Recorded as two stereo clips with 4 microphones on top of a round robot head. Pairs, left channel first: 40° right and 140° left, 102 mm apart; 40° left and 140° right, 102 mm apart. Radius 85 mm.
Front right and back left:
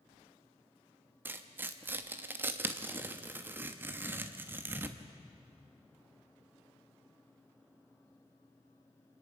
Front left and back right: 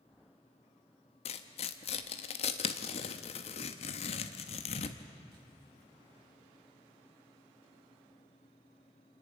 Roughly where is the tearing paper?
Left.